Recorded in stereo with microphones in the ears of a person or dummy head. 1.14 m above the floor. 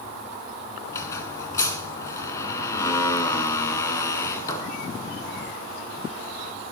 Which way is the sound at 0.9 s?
20° left (ahead or behind).